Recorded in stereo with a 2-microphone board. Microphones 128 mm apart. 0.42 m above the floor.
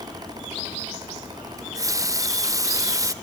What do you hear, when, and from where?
1.6 s a running tap: 25° right (ahead or behind), 0.7 m